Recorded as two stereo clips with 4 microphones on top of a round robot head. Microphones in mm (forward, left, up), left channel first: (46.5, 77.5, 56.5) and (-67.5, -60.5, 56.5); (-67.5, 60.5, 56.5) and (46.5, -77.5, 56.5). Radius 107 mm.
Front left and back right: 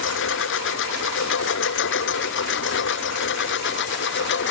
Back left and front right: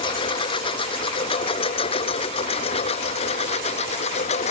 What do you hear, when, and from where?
0.0 s a lawn mower: 65° left; by 4.5 s 75° left